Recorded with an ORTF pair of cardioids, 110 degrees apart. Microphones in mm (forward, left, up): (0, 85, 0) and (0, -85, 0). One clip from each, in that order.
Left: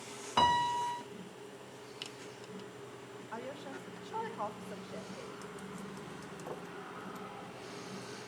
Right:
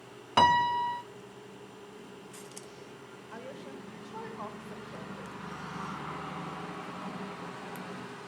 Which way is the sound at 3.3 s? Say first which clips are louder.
Left 1 dB; 15° left.